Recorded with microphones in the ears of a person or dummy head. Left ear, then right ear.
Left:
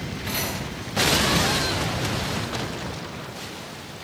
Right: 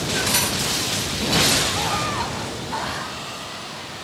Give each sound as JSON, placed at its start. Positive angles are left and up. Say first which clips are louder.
{"t": 0.3, "sound": "cutlery clinking", "louder": "right 3 dB", "side_deg": -70, "distance_m": 3.0}